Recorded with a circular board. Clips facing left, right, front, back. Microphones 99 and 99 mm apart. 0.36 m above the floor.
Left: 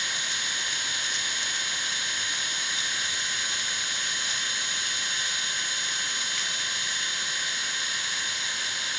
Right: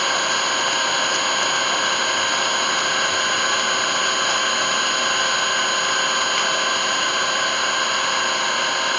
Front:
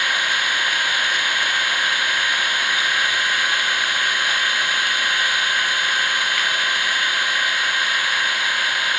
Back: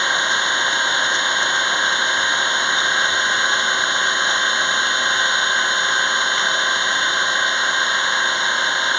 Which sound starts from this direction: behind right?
An engine running, at 0.0 s.